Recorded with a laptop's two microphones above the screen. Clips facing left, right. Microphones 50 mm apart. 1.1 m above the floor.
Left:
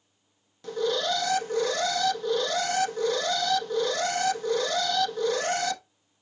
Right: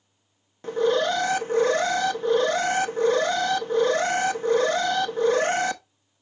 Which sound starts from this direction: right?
An alarm, at 0.6 s.